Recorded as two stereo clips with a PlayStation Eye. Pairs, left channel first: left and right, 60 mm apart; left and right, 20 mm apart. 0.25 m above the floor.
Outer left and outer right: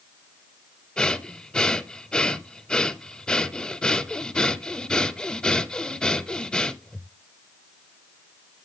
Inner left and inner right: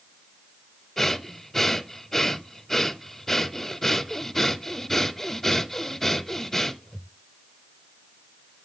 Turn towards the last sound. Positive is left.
turn(degrees=15)  # may be behind; listen again after turning